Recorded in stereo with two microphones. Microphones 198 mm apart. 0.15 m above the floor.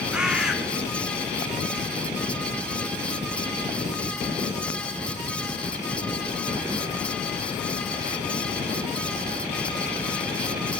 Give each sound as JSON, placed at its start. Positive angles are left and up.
{"t": 0.1, "sound": "a bird", "side_deg": -5, "distance_m": 1.6}